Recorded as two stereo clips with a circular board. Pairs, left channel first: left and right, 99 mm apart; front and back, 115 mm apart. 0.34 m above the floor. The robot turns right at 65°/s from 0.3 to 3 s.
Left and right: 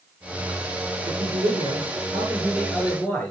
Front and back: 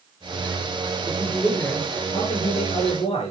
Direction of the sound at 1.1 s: 110° right.